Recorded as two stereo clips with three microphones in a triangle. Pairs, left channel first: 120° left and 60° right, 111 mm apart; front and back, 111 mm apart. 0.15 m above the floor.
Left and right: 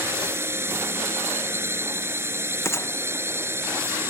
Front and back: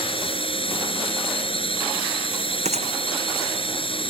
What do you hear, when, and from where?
0.0 s a drone: 5° left
2.6 s a gunshot: 175° right